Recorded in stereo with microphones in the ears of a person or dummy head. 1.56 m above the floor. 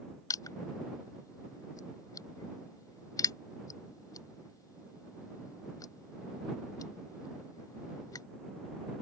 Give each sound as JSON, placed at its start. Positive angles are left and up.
{"t": 0.3, "sound": "crushing", "side_deg": 20}